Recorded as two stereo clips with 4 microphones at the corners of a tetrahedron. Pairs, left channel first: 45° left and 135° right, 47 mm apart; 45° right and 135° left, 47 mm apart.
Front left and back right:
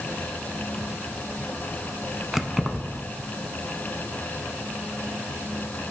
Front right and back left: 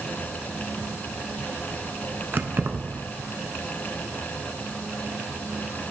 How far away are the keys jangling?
About 0.9 m.